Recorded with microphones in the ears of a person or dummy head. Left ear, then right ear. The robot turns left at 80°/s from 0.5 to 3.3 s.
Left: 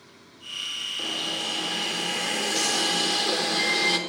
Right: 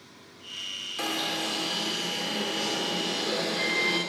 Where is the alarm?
140° right, 5.5 m; by 4.0 s 35° left, 5.5 m.